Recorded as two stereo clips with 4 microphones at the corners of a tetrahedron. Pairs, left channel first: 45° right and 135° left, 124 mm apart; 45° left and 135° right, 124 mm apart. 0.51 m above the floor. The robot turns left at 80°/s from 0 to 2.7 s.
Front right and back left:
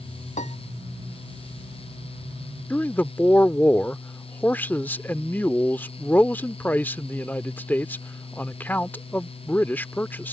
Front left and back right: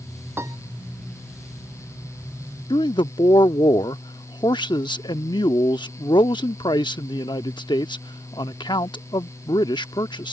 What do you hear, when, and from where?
0.4 s a piano: 65° right; by 0.6 s 80° right
2.7 s a man speaking: 20° left